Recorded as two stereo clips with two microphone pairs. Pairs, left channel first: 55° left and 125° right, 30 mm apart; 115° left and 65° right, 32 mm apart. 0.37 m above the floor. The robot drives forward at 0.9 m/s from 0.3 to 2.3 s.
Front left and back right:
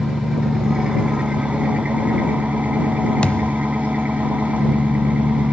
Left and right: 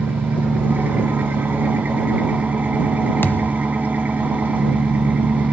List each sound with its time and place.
0.0 s an engine running: 55° right, 2.5 m; by 5.5 s 95° right, 2 m
3.2 s a thud: 105° left, 0.8 m